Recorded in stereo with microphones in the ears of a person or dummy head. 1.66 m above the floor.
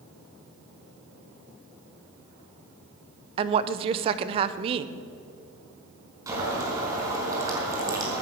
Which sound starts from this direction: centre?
Boiling, at 6.3 s.